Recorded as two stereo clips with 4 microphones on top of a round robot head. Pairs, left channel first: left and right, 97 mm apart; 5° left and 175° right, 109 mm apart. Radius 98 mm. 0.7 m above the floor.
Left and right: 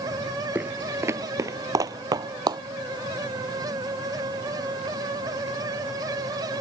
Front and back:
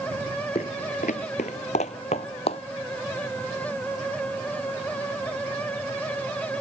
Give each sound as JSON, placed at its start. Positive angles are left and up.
{"t": 0.6, "sound": "footsteps", "azimuth_deg": -20}